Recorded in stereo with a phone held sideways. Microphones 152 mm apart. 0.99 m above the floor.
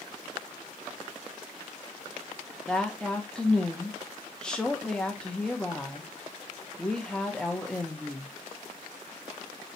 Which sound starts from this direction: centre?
A woman speaking, at 2.7 s.